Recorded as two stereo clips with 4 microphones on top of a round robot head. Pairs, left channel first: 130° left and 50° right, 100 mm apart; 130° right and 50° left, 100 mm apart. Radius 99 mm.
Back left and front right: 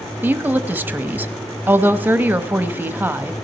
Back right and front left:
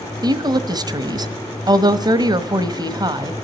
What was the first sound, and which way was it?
A woman speaking, 20° left.